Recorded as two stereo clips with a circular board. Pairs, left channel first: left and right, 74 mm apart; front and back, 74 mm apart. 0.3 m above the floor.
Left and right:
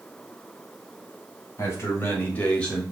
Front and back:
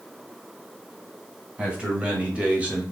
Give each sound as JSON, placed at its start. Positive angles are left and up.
{"t": 1.6, "sound": "a man speaking", "azimuth_deg": 110, "distance_m": 1.5}